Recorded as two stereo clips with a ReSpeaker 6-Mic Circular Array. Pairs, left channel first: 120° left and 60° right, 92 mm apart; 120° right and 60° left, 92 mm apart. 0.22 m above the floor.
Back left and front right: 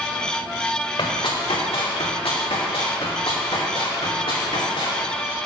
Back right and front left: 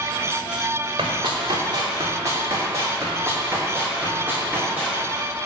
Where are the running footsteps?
90° left, 2.5 m; by 5.0 s 135° left, 4.5 m.